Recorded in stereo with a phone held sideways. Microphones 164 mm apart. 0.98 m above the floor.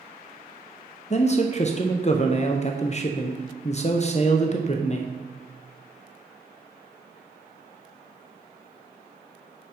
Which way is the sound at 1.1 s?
45° left (ahead or behind).